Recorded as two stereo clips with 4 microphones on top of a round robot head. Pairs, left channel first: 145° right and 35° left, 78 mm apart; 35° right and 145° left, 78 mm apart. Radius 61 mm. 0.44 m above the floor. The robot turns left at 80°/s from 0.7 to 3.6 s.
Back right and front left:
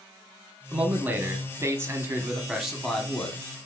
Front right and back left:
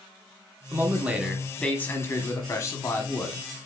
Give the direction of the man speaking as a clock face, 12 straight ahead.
9 o'clock.